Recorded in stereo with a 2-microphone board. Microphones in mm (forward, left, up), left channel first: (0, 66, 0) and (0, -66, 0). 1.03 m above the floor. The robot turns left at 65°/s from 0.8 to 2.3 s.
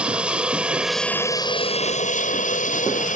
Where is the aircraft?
170° right; by 3.2 s 90° left.